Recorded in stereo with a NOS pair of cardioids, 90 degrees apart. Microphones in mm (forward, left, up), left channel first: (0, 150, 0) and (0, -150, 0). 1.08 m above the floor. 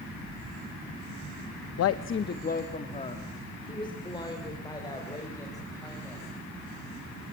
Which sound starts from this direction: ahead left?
A woman speaking, at 1.8 s.